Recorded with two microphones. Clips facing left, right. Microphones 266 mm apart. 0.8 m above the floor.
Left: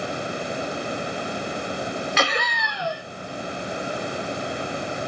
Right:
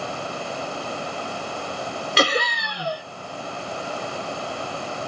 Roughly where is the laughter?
Right.